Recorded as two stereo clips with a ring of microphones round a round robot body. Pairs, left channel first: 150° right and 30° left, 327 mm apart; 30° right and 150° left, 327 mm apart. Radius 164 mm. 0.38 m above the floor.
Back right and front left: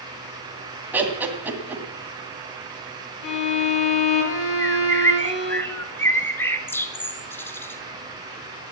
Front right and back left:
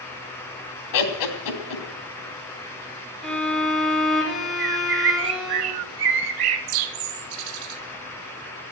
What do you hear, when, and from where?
0.9 s laughter: 55° right, 2.5 m
3.2 s a violin: 120° right, 3.5 m
4.6 s a bird: 125° left, 0.8 m